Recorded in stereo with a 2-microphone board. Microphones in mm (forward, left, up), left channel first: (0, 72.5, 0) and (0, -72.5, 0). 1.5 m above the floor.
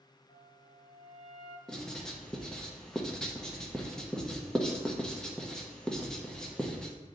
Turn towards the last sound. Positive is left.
turn(degrees=5)  # may be behind; listen again after turning